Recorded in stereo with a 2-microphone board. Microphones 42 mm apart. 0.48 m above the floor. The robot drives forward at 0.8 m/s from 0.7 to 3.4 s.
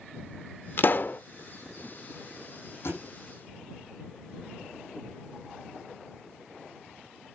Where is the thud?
75° left (ahead or behind), 7.5 m.